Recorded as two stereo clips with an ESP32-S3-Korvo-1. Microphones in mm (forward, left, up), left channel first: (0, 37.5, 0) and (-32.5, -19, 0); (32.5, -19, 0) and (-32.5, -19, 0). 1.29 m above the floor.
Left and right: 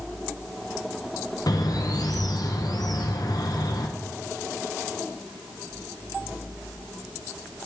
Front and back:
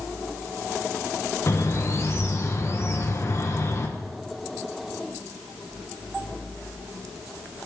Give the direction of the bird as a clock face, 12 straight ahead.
10 o'clock.